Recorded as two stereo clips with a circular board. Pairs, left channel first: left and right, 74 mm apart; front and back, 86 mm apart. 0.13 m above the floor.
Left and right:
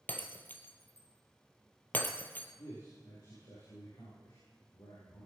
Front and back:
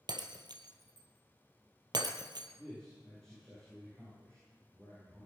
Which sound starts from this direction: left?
A man speaking, at 2.6 s.